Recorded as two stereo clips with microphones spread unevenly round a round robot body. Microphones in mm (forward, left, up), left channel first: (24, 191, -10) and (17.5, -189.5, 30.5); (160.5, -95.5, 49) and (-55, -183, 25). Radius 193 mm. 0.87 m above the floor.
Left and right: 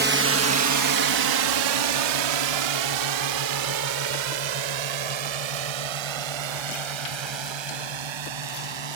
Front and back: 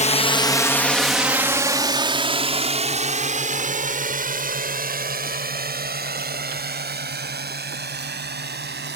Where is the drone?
30° right; by 9.0 s 115° right.